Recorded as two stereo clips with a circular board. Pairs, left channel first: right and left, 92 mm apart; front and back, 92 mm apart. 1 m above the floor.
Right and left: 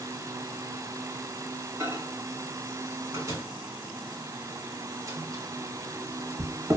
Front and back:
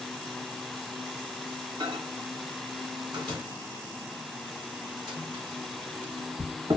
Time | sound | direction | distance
1.8 | a microwave | 145° left | 1.0 m